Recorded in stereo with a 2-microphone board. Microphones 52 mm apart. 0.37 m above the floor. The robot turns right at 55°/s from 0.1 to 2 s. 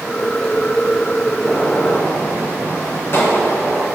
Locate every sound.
1.4 s a gunshot: 20° left, 2.5 m; by 3.9 s 50° left, 2.5 m